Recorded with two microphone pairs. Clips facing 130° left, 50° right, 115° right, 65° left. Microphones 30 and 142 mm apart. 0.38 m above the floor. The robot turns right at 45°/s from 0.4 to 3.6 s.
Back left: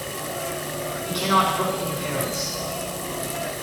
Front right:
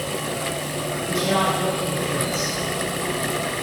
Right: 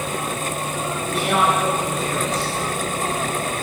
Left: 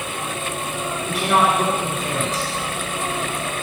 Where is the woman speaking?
65° left, 3.5 m; by 2.5 s 130° left, 3.5 m.